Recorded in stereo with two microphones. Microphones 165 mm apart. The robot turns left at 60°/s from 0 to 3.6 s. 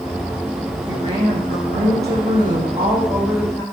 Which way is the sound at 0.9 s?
25° right.